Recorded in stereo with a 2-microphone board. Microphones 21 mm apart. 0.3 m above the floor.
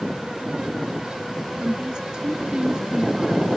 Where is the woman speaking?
35° right (ahead or behind).